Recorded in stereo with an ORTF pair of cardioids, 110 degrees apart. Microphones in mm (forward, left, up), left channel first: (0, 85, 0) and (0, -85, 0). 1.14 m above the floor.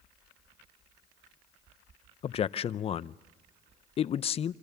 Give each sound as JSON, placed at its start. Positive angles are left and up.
{"t": 2.2, "sound": "a man speaking", "azimuth_deg": 35, "distance_m": 0.5}